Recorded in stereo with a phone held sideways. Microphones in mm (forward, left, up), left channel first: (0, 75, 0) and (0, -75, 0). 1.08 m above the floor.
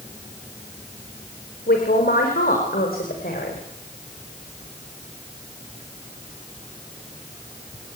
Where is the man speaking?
80° left, 4.5 m; by 3.6 s 75° left (ahead or behind), 5 m.